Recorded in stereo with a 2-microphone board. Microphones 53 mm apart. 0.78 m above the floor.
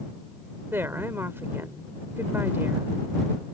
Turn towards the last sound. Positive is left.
turn(degrees=-50)  # may be behind; listen again after turning